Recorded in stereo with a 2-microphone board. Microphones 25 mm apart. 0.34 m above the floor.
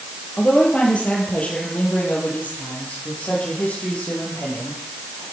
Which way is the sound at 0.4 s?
50° left (ahead or behind).